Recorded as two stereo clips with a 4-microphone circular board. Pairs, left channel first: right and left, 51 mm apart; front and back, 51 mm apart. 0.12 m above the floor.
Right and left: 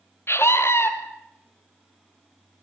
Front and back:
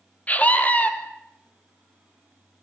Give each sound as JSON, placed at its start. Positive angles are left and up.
{"t": 0.3, "sound": "a scream", "azimuth_deg": -60, "distance_m": 3.0}